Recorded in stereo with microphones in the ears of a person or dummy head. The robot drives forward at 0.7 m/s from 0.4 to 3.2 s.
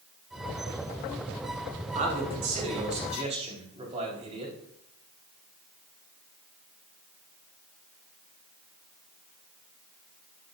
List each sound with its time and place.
1.9 s a man speaking: 40° right (ahead or behind), 4.5 m; by 4.5 s 35° right (ahead or behind), 5 m